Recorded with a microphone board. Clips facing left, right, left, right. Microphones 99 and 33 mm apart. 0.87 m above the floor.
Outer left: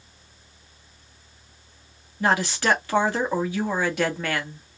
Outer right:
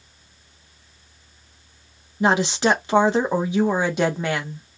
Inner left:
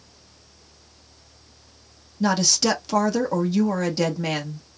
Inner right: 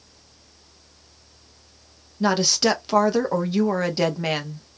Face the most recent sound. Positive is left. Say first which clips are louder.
# outer right 3 dB, inner right 1 dB
turn(degrees=-20)  # may be behind; listen again after turning